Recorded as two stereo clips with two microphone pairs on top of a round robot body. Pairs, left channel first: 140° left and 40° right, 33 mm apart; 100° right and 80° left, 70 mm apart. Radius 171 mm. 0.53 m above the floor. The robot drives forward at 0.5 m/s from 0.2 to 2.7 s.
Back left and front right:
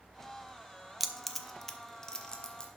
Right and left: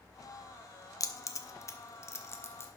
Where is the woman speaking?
I don't hear a woman speaking.